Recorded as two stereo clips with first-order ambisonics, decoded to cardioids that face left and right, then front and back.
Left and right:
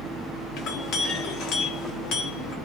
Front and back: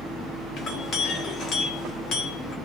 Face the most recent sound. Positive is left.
turn(degrees=50)